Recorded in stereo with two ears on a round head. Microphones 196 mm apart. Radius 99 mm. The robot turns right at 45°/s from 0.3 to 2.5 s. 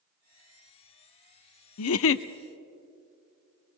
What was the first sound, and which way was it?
A giggle, 80° left.